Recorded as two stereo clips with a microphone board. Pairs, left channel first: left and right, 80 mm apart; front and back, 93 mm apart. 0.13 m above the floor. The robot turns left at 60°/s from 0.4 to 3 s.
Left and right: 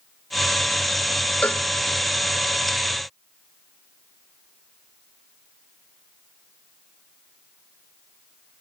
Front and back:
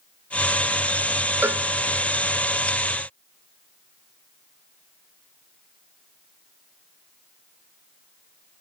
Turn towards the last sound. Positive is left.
turn(degrees=45)